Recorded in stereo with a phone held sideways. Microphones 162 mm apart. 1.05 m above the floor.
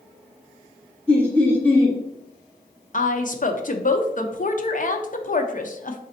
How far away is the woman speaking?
About 0.6 m.